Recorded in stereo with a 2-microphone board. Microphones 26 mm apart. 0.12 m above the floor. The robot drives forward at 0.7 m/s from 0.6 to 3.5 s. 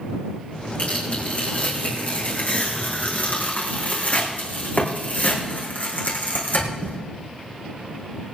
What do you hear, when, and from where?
0.8 s tearing paper: 55° left (ahead or behind), 5.5 m; by 7.0 s 70° left (ahead or behind), 5 m